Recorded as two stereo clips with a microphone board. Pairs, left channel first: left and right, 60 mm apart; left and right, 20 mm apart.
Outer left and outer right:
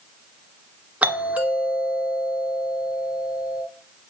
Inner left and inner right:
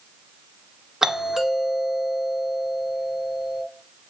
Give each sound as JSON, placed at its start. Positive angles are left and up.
{"t": 1.0, "sound": "a doorbell", "side_deg": -25, "distance_m": 2.0}